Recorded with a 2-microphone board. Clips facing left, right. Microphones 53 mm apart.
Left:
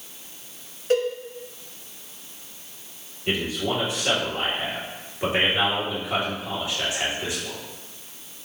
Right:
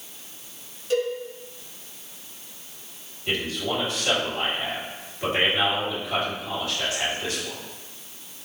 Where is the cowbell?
50° left (ahead or behind), 1.3 m.